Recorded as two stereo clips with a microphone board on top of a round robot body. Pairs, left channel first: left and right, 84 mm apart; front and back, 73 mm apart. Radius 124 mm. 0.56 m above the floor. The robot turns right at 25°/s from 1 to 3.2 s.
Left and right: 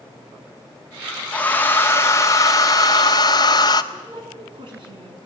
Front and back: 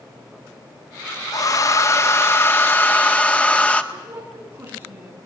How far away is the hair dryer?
About 1.8 m.